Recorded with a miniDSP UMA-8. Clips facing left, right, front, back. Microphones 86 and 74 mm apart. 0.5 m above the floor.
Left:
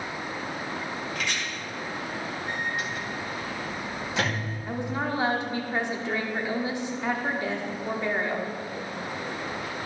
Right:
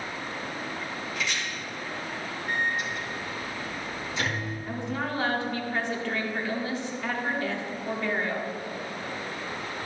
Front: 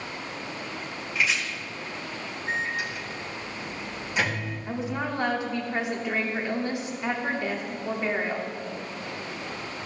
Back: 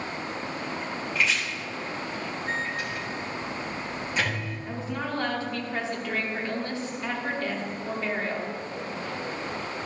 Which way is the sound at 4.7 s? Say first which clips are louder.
Left 3 dB, front 2 dB; 45° left.